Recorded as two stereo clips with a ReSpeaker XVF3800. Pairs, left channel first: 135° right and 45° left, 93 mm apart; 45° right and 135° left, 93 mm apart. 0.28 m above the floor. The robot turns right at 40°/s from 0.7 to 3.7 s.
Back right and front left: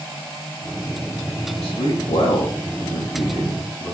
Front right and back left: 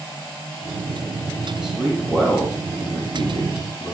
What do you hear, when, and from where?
1.6 s a man speaking: 145° right, 9.5 m; by 3.9 s 60° right, 9.5 m